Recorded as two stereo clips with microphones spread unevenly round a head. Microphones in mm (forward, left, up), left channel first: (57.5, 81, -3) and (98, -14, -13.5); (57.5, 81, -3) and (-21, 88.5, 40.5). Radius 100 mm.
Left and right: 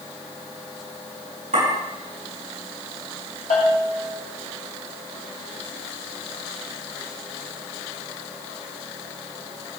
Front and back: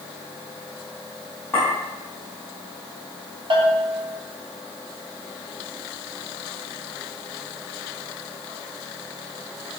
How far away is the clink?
About 6 m.